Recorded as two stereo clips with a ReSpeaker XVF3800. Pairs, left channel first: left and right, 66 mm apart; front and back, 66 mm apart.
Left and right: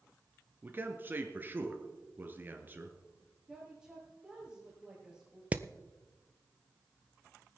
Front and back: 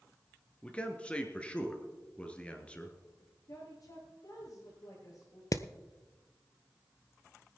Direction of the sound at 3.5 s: 5° left.